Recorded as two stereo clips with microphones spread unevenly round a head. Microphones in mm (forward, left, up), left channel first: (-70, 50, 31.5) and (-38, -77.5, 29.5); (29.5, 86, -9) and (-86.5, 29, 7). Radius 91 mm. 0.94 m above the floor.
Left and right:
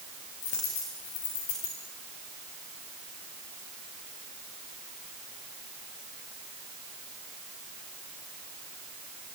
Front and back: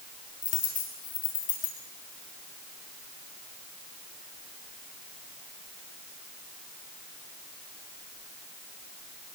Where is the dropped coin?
50° left, 8 m.